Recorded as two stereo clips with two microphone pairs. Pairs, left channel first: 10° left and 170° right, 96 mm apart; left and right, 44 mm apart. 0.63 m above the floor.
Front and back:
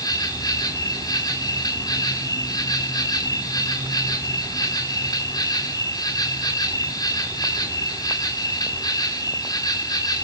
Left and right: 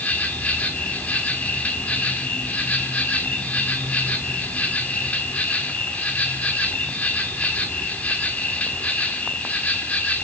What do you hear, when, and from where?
0.0 s an insect: 45° left, 2.5 m